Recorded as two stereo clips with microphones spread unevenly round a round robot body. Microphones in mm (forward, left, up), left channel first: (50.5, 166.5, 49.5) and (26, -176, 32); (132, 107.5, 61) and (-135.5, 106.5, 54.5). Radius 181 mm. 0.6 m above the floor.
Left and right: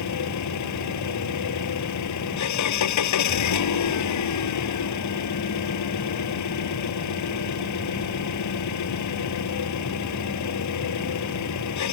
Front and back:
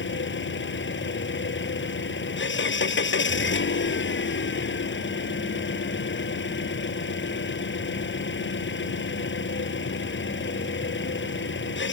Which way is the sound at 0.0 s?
45° left.